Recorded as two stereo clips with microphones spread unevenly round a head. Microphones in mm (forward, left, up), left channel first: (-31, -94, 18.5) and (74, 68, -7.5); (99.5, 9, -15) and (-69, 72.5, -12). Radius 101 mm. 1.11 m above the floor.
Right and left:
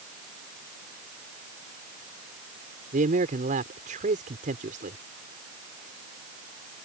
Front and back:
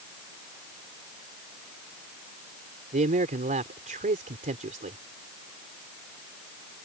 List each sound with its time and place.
2.9 s a man speaking: 115° left